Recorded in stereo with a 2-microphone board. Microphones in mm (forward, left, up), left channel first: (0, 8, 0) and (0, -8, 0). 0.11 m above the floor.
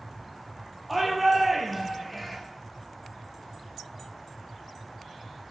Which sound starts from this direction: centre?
A shout, at 0.9 s.